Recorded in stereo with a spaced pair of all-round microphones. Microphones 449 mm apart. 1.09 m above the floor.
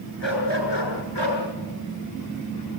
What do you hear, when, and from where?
0.2 s a dog barking: 70° left (ahead or behind), 8 m; by 1.4 s 55° left (ahead or behind), 6.5 m